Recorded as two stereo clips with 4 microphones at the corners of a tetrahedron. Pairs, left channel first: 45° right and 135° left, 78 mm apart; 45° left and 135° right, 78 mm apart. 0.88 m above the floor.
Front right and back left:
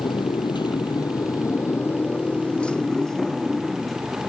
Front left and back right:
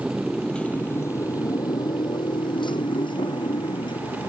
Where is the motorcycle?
55° right; by 4.3 s 45° left.